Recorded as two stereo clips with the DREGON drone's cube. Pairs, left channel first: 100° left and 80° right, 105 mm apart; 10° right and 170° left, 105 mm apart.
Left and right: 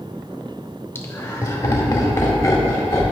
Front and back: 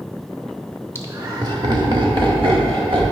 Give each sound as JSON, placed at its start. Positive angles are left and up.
{"t": 0.9, "sound": "laughter", "azimuth_deg": 140, "distance_m": 1.0}